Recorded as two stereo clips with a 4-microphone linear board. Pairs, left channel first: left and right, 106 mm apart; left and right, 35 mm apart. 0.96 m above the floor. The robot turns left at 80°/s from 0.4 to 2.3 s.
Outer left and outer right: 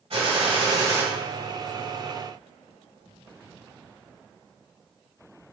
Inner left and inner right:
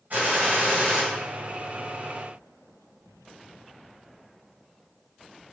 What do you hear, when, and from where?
0.1 s a gunshot: 110° right, 1.6 m; by 1.0 s 160° right, 1.6 m